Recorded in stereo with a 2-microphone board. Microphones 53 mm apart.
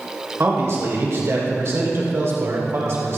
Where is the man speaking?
50° right (ahead or behind), 2.5 m.